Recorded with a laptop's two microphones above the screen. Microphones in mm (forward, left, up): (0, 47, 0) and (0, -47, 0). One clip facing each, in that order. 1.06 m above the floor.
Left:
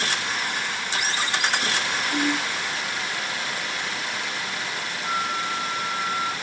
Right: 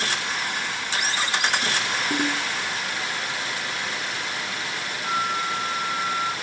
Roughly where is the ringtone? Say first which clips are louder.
Left 2 dB; right.